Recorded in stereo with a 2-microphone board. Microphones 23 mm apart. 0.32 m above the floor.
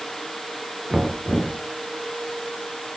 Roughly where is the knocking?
Right.